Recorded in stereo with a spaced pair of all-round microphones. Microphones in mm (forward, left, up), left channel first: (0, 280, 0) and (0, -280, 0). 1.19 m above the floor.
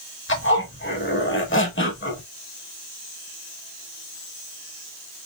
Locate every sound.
0.3 s a zipper: 20° left (ahead or behind), 1.0 m